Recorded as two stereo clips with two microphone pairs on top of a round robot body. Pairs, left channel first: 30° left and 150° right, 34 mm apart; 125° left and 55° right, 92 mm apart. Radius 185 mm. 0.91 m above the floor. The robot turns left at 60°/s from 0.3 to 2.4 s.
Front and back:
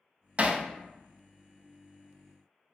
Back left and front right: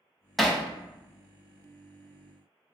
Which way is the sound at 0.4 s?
145° right.